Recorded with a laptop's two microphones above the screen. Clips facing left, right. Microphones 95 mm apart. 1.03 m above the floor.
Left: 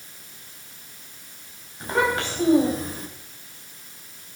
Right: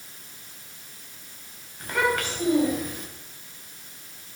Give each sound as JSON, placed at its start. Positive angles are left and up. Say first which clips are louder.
{"t": 1.8, "sound": "a child speaking", "louder": "left 2 dB", "side_deg": 25, "distance_m": 4.5}